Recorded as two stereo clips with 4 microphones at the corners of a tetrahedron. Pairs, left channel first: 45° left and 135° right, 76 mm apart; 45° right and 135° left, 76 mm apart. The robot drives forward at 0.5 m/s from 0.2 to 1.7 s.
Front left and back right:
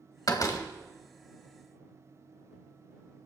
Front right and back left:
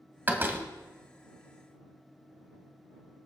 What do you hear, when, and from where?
0.3 s a door slam: 75° left, 1.8 m; by 0.7 s 80° left, 1.7 m